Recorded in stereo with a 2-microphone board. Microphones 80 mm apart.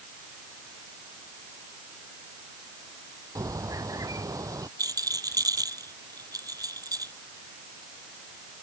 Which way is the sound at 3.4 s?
45° right (ahead or behind).